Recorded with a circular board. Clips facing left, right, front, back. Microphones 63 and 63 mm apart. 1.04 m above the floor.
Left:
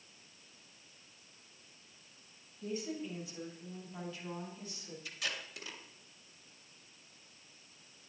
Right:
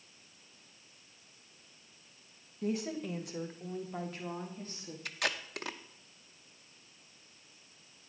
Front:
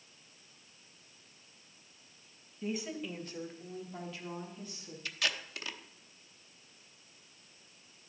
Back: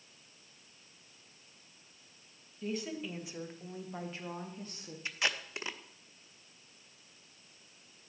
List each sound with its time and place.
2.6 s a woman speaking: 75° right, 1.3 m; by 5.0 s 140° right, 1.9 m
5.0 s tape being pulled: 115° right, 0.7 m